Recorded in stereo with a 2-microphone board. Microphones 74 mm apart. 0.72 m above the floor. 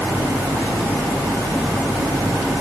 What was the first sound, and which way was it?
Only background noise.